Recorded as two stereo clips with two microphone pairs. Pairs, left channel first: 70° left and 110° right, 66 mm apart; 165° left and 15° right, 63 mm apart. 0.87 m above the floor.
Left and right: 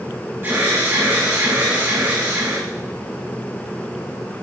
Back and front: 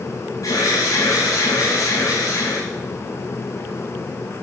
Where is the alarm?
165° right, 7.5 m.